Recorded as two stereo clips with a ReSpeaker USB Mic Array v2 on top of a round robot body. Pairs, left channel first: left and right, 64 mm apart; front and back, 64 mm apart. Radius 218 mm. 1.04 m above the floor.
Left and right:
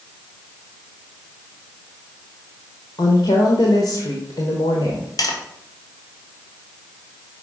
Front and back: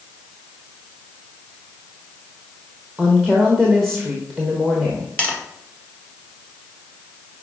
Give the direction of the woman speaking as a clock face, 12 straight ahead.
9 o'clock.